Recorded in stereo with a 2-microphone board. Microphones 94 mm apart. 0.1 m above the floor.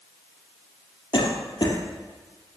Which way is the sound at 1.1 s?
55° left (ahead or behind).